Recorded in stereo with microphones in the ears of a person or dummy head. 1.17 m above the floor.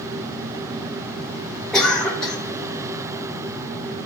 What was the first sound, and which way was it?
A cough, 5° left (ahead or behind).